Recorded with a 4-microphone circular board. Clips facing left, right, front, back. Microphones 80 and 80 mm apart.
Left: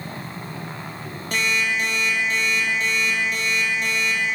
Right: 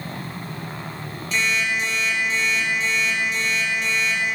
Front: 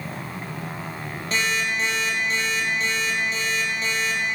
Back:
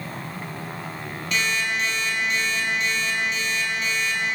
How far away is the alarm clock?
About 3.5 m.